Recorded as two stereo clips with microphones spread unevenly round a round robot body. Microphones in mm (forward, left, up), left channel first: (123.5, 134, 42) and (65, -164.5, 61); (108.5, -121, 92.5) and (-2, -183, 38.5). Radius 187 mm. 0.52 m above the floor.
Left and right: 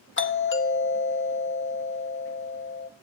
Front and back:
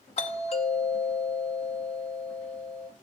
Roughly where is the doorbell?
Left.